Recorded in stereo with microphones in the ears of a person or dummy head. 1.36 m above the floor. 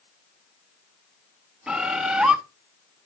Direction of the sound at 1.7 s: 5° right (ahead or behind).